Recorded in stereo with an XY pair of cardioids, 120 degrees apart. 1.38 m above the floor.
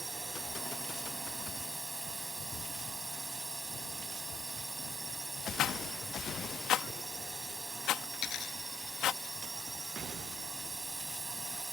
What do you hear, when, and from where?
0.0 s a drone: 10° right
5.6 s a rattle: 65° left
8.1 s a dropped coin: 60° left